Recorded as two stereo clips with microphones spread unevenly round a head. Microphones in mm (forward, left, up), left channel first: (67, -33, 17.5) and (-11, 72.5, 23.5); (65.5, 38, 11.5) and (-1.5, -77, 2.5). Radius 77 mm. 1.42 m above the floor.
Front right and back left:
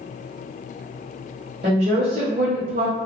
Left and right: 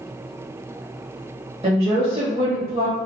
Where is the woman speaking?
170° left, 0.7 m.